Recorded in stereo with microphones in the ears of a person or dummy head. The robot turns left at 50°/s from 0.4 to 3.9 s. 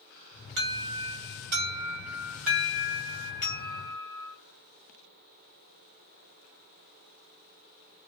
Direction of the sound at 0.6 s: 75° right.